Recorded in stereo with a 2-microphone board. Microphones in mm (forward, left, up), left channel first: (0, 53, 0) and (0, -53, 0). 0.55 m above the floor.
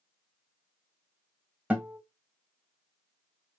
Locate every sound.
1.7 s a guitar: 15° right (ahead or behind), 1.4 m